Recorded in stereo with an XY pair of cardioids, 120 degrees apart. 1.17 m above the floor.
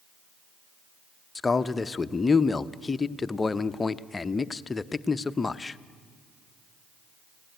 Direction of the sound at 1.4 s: 20° left.